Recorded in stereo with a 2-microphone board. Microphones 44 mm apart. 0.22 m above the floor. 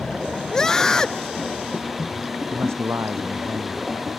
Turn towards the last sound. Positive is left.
turn(degrees=-80)